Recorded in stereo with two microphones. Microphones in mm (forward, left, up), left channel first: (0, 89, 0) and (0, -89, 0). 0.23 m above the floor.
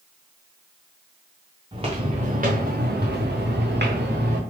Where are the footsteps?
30° right (ahead or behind), 1.5 m; by 4.4 s 75° right (ahead or behind), 1.7 m.